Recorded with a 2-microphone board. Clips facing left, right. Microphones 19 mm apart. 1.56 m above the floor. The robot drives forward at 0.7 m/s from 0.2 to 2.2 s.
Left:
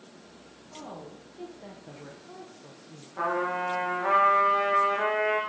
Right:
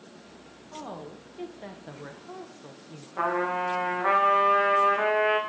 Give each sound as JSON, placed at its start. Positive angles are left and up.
{"t": 0.7, "sound": "a woman speaking", "side_deg": -35, "distance_m": 1.2}
{"t": 3.2, "sound": "a trumpet", "side_deg": -25, "distance_m": 1.5}